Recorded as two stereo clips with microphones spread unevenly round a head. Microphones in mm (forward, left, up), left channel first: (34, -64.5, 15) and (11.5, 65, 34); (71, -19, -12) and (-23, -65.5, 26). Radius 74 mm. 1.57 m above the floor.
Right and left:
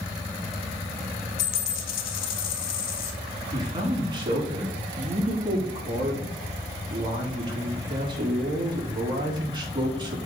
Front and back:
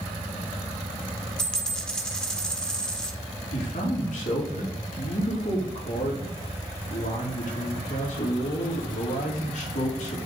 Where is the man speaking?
45° left, 3.5 m.